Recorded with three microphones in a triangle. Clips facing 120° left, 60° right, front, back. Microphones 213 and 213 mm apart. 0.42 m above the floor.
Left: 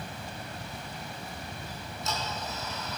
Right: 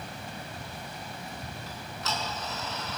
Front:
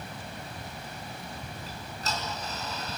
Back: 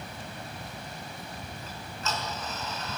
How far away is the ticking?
About 5 m.